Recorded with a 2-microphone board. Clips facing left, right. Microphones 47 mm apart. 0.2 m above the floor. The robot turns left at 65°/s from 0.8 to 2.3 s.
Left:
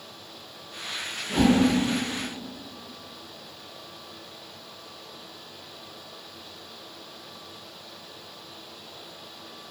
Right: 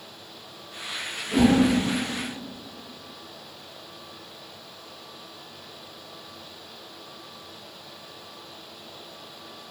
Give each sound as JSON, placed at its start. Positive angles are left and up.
{"t": 1.3, "sound": "a whoosh", "side_deg": 35, "distance_m": 1.9}